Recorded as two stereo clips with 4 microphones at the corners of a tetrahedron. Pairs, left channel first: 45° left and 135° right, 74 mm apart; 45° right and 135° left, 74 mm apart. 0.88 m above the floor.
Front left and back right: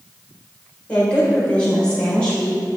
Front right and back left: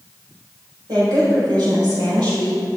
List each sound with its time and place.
0.9 s a woman speaking: 120° left, 3.5 m